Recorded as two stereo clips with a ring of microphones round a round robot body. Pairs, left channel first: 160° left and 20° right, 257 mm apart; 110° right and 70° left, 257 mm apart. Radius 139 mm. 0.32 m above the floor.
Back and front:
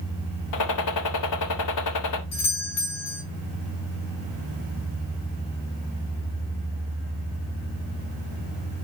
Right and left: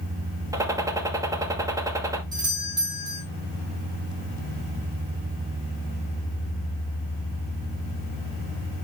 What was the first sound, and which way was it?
A gunshot, 145° left.